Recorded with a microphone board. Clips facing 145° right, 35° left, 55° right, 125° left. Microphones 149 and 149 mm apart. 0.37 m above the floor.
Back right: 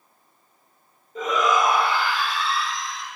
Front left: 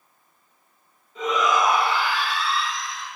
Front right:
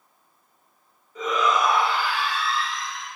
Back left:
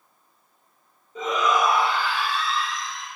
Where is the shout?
175° right, 1.6 m; by 3.1 s 90° right, 1.8 m.